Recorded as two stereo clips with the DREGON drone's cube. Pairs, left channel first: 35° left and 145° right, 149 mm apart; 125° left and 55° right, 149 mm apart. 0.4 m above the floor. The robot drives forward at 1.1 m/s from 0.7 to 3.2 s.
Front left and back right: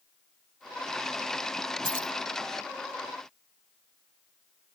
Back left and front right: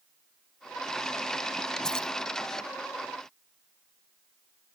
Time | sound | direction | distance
1.8 | keys jangling | 150° right | ?